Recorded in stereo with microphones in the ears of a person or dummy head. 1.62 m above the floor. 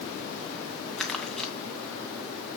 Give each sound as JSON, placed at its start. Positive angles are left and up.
{"t": 1.0, "sound": "crumpling", "side_deg": 5, "distance_m": 1.9}